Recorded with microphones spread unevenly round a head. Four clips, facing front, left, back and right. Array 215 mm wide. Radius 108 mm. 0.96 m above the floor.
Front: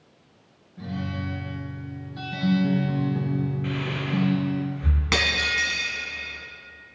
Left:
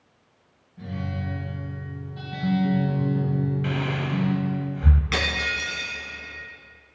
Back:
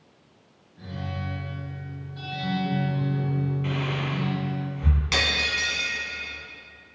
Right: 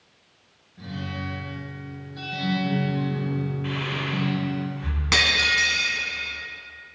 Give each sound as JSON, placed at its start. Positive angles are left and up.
{"t": 0.8, "sound": "a guitar", "azimuth_deg": 5, "distance_m": 4.5}
{"t": 3.6, "sound": "breathing", "azimuth_deg": 110, "distance_m": 1.3}
{"t": 5.1, "sound": "breaking glass", "azimuth_deg": -20, "distance_m": 3.5}